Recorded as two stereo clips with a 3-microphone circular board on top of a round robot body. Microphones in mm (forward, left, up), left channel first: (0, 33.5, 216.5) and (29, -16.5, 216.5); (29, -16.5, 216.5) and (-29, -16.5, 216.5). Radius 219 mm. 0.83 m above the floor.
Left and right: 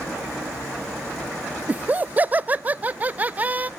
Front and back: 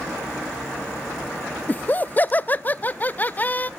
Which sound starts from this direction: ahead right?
Laughter, at 1.7 s.